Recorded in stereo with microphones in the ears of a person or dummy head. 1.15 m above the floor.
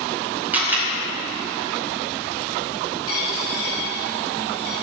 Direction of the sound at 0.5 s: 10° right (ahead or behind).